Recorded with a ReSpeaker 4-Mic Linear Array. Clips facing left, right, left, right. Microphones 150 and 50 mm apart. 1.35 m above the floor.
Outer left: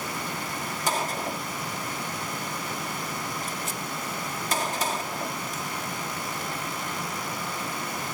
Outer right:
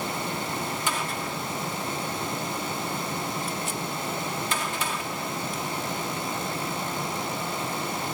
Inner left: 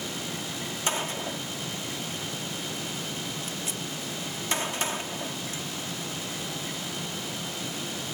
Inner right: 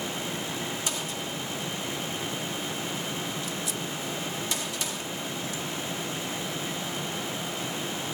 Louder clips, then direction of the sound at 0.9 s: Outer left 2 dB, inner left 3 dB; 40° left (ahead or behind).